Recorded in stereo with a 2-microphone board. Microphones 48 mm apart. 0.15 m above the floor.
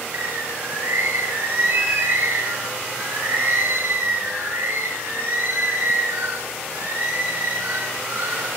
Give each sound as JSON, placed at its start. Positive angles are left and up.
{"t": 0.1, "sound": "a bird", "side_deg": -80, "distance_m": 5.0}